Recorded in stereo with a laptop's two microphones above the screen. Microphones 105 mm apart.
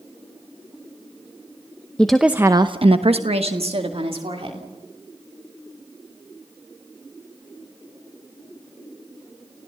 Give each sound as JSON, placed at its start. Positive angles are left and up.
{"t": 2.0, "sound": "a woman speaking", "side_deg": 10, "distance_m": 1.0}